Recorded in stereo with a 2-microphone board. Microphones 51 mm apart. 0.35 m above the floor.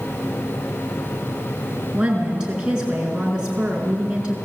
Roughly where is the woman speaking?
Centre.